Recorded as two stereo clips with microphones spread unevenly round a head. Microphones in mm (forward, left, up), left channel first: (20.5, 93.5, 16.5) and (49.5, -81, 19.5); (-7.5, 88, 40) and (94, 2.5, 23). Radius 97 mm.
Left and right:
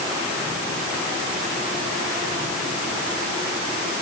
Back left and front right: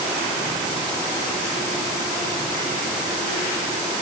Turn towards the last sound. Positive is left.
No sound to turn to.